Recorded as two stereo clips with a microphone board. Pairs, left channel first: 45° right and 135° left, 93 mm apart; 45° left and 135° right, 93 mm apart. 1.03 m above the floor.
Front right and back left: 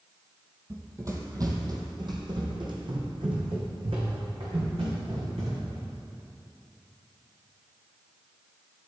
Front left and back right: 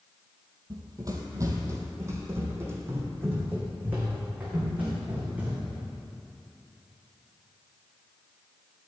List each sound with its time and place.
0.7 s running footsteps: 170° right, 1.6 m; by 5.8 s 150° left, 4.5 m